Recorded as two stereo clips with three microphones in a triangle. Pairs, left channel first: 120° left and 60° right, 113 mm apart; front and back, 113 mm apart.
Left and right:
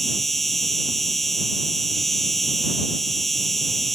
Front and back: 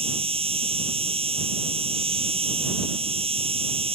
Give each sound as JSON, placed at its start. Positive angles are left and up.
{"t": 0.0, "sound": "an insect", "azimuth_deg": -150}